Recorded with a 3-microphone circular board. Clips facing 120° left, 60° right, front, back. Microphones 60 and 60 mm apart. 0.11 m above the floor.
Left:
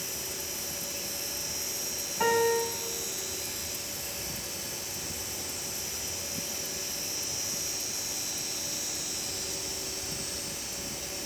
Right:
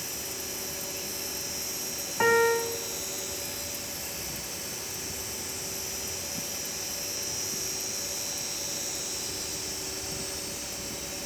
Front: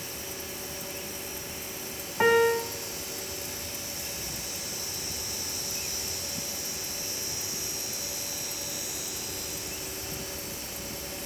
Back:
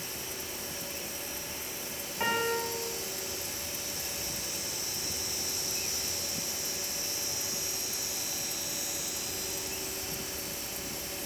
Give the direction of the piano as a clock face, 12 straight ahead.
1 o'clock.